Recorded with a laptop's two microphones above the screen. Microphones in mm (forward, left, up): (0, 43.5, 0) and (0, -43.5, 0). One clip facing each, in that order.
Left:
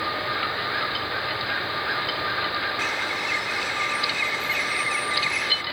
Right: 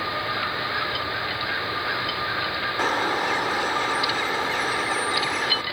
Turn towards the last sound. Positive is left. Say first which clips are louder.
# right 5 dB
turn(degrees=-45)  # may be behind; listen again after turning